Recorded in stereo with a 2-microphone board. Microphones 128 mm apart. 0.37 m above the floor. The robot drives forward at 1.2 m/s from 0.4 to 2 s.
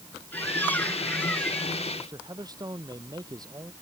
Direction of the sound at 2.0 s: 30° right (ahead or behind).